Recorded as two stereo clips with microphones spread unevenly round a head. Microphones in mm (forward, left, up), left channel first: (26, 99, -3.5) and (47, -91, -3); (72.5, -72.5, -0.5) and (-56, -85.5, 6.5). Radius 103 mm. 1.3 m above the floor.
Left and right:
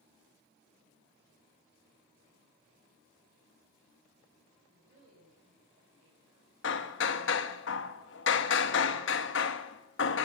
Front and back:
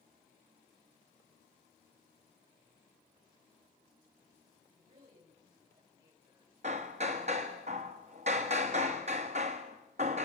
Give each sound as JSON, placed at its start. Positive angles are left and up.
{"t": 4.7, "sound": "a woman speaking", "azimuth_deg": -145, "distance_m": 6.5}
{"t": 6.6, "sound": "hammering", "azimuth_deg": 130, "distance_m": 1.2}